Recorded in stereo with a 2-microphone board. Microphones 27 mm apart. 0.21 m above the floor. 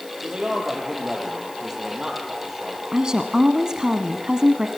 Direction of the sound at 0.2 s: 30° right (ahead or behind).